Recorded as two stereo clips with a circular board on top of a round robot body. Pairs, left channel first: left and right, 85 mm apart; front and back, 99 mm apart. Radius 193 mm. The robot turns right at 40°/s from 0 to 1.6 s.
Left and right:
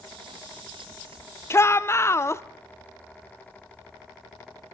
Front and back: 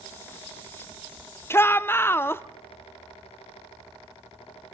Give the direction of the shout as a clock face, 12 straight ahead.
10 o'clock.